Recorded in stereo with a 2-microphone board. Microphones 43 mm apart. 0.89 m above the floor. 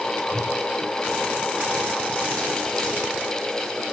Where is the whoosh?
45° left (ahead or behind), 3.5 m.